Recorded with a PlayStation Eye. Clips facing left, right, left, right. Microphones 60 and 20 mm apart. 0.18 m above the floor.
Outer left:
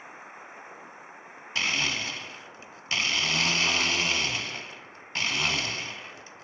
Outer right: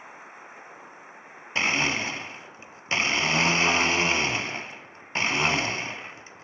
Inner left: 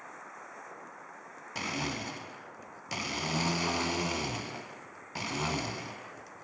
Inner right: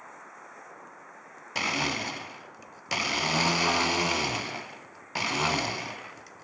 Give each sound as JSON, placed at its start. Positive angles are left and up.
{"t": 1.6, "sound": "a blender", "side_deg": -30, "distance_m": 0.9}